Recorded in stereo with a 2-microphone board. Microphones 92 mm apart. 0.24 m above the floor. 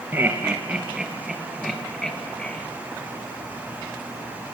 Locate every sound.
0.1 s laughter: 20° right (ahead or behind), 3.5 m; by 2.6 s 15° left (ahead or behind), 4 m